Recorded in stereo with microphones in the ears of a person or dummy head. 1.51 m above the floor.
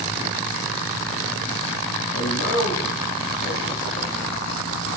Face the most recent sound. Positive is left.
turn(degrees=30)  # may be behind; listen again after turning